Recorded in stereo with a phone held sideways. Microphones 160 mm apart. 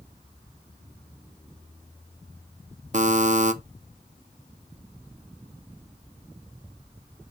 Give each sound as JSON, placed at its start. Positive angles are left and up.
{"t": 2.9, "sound": "a buzzer", "side_deg": -50, "distance_m": 0.7}